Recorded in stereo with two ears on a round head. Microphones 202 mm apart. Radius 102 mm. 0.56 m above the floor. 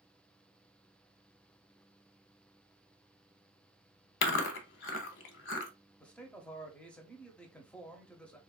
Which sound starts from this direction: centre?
A man speaking, at 6.0 s.